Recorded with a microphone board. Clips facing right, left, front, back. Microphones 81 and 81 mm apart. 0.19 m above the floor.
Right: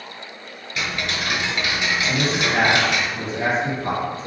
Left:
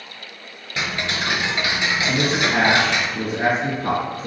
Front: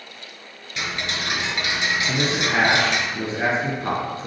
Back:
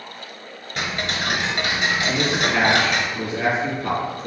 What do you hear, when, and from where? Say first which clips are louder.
0.8 s ticking: left 1 dB, back 2 dB; 140° left, 1.1 m
2.1 s a man speaking: left 2 dB, back 1 dB; 60° left, 3 m